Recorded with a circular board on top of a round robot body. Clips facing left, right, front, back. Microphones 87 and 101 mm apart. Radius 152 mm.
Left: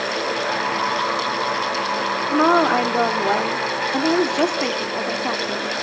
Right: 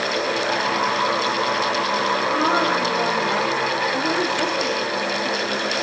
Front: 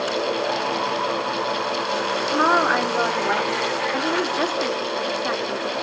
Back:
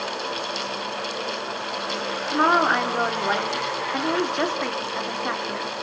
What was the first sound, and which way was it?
A woman speaking, 85° left.